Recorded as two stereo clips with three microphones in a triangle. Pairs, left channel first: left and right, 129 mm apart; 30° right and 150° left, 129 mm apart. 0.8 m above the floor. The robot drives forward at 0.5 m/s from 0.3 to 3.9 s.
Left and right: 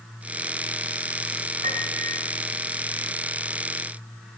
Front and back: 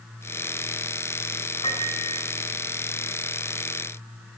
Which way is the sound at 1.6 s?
75° right.